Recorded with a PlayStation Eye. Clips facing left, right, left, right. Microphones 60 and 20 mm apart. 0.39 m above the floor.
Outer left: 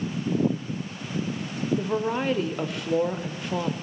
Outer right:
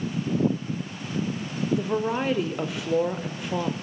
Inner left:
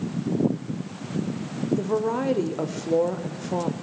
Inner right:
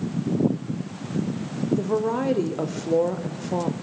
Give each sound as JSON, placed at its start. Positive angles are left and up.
{"t": 1.7, "sound": "a woman speaking", "side_deg": 0, "distance_m": 0.9}